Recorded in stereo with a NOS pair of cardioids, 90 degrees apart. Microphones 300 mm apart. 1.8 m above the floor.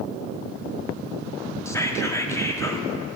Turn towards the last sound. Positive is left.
turn(degrees=10)